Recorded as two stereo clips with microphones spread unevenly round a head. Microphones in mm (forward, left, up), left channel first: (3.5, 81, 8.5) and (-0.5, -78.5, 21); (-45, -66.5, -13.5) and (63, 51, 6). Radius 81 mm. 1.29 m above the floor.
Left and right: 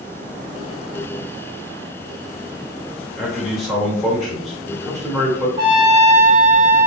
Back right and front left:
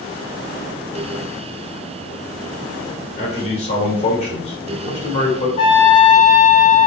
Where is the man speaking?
175° left, 1.6 m.